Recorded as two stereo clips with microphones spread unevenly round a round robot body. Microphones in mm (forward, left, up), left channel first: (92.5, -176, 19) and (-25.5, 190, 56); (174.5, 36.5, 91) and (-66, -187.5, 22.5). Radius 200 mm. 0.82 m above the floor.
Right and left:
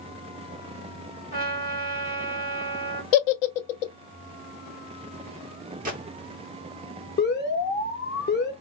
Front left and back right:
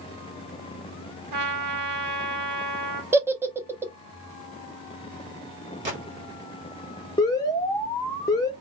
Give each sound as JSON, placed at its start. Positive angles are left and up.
{"t": 1.3, "sound": "a trumpet", "azimuth_deg": -150, "distance_m": 1.5}
{"t": 3.1, "sound": "a giggle", "azimuth_deg": -55, "distance_m": 0.6}
{"t": 5.8, "sound": "a gunshot", "azimuth_deg": 180, "distance_m": 1.3}
{"t": 7.2, "sound": "an alarm", "azimuth_deg": -50, "distance_m": 1.0}